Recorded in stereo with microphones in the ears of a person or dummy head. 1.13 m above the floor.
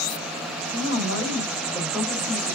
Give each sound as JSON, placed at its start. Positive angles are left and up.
{"t": 0.7, "sound": "a woman speaking", "side_deg": -40, "distance_m": 1.5}